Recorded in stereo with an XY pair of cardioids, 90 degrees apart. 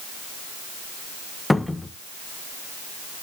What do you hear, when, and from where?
1.5 s a cupboard door: 10° left, 1.0 m